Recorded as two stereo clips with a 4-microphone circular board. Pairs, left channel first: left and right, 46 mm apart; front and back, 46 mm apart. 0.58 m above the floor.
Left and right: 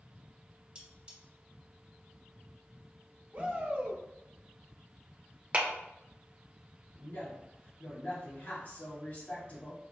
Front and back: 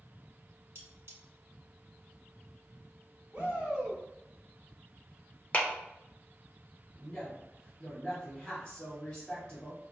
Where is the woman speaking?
80° left, 1.9 m.